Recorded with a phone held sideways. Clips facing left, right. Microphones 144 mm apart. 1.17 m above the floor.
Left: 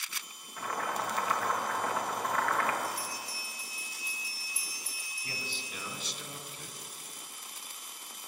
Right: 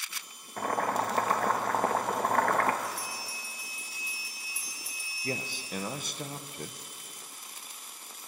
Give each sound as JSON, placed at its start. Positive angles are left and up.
{"t": 0.6, "sound": "boiling", "side_deg": -50, "distance_m": 0.9}
{"t": 2.8, "sound": "a bell", "side_deg": -65, "distance_m": 3.5}
{"t": 5.2, "sound": "a man speaking", "side_deg": -50, "distance_m": 0.7}